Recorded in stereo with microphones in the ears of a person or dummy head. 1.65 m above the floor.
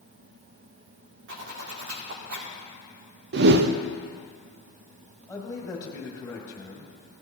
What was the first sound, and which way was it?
A zipper, 60° right (ahead or behind).